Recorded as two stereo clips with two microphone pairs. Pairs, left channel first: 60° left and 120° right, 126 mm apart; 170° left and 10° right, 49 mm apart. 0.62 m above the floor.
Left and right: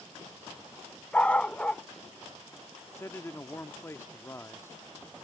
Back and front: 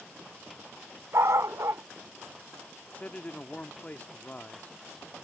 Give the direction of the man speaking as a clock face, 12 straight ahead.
8 o'clock.